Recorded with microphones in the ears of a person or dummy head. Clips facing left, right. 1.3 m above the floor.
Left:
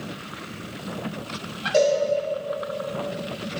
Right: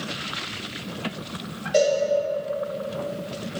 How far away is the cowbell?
About 1.9 m.